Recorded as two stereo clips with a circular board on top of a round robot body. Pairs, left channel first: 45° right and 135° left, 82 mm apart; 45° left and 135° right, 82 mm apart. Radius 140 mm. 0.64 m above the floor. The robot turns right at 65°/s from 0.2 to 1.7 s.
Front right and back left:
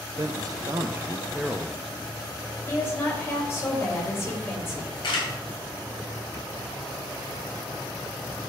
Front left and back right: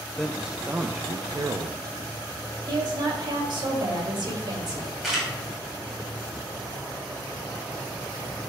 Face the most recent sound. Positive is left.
turn(degrees=-45)